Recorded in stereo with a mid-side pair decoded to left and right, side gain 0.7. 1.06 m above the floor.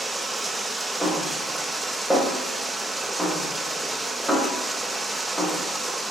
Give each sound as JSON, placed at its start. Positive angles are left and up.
{"t": 0.0, "sound": "running water", "azimuth_deg": -10, "distance_m": 0.8}
{"t": 1.0, "sound": "a snare drum", "azimuth_deg": -5, "distance_m": 3.5}